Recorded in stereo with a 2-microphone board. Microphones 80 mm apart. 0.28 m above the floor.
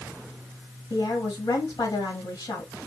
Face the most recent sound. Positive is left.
turn(degrees=50)  # may be behind; listen again after turning